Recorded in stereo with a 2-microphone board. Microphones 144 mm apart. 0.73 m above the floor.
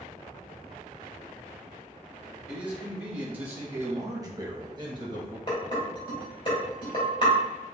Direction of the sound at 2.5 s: 5° right (ahead or behind).